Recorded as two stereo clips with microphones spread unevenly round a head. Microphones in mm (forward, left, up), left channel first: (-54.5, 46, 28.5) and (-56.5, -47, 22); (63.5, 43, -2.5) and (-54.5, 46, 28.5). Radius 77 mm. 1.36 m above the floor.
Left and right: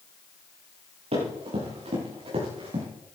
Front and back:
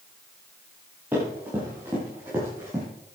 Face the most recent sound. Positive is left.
turn(degrees=-110)